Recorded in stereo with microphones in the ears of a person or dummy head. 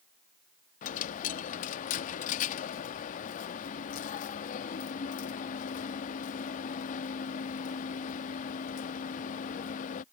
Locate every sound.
0.8 s a dropped coin: 45° left (ahead or behind)